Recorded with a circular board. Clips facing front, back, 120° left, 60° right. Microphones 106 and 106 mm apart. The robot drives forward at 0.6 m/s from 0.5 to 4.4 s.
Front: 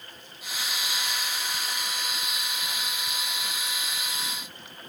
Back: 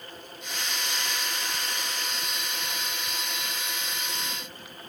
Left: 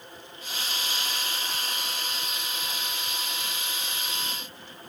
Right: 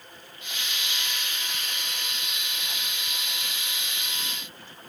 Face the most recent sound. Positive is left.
No sound to turn to.